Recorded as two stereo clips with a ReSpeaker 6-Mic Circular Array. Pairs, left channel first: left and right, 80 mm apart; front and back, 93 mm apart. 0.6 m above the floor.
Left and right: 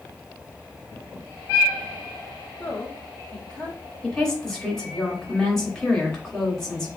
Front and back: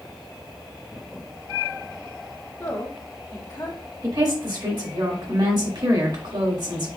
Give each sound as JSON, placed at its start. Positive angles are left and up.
{"t": 2.6, "sound": "a woman speaking", "azimuth_deg": 30, "distance_m": 1.3}
{"t": 4.0, "sound": "a woman speaking", "azimuth_deg": 170, "distance_m": 1.7}